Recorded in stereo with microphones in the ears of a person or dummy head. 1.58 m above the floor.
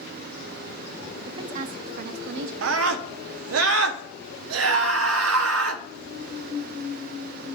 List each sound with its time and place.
1.3 s a woman speaking: 20° right (ahead or behind), 0.6 m; by 2.5 s 55° right (ahead or behind), 1.2 m
2.6 s a scream: 75° right (ahead or behind), 1.0 m